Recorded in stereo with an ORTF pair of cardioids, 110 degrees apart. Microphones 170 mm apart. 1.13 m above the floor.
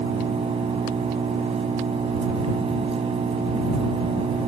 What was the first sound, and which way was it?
An engine running, 35° right.